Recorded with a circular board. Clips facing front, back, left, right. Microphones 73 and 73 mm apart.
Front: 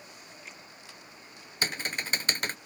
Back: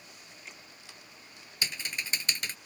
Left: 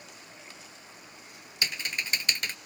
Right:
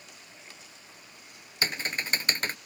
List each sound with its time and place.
1.6 s typing on a keyboard: 40° right